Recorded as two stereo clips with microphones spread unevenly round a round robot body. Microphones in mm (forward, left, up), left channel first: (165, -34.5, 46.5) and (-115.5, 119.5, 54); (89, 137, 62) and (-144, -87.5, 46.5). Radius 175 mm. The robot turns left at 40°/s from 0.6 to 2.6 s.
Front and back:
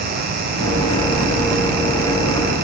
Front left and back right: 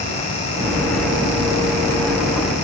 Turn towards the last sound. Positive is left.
No sound to turn to.